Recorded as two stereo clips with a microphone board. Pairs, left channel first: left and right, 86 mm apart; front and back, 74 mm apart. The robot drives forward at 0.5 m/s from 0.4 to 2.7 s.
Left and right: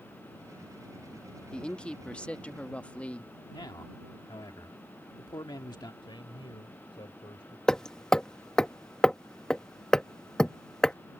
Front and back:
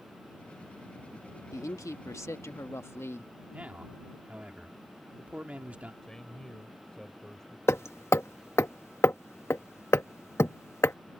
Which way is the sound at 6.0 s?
80° left.